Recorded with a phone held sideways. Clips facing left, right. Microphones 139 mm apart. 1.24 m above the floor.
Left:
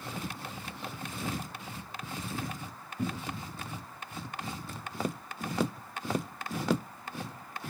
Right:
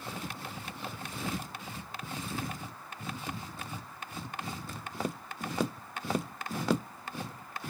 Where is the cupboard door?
75° left (ahead or behind), 1.0 m.